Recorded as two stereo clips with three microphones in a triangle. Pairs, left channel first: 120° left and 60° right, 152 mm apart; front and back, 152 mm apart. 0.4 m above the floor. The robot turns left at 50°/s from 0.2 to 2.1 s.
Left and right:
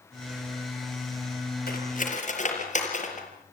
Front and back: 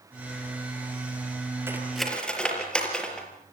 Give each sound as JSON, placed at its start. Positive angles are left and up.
{"t": 1.7, "sound": "cutlery clinking", "azimuth_deg": 105, "distance_m": 5.0}